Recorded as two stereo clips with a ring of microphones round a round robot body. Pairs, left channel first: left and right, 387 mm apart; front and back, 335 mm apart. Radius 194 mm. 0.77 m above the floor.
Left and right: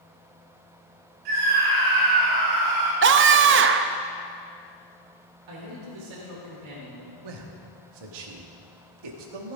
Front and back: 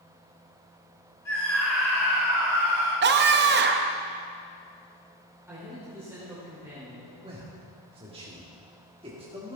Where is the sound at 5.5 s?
95° right, 3 m.